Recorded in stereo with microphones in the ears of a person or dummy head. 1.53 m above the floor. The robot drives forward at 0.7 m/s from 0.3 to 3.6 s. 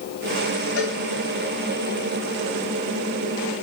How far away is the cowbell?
About 4.5 m.